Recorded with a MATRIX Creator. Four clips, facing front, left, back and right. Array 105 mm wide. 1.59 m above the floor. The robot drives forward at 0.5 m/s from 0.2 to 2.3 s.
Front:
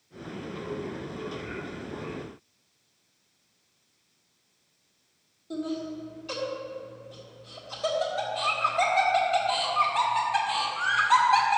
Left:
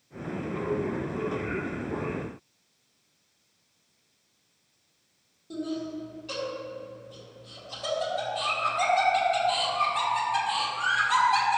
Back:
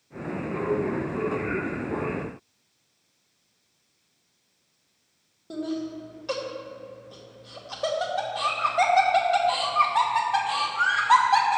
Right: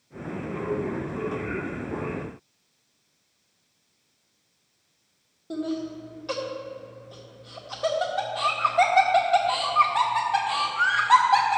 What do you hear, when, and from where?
5.5 s laughter: 140° right, 1.8 m